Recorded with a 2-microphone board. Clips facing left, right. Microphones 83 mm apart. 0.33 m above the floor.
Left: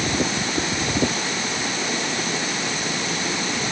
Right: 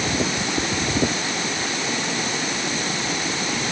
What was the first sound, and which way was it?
Only background noise.